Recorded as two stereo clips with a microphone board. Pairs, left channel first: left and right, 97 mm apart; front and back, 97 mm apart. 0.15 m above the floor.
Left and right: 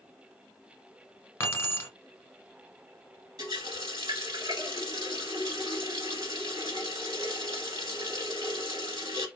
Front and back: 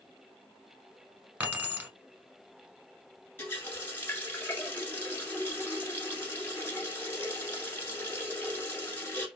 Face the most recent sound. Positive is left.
turn(degrees=-65)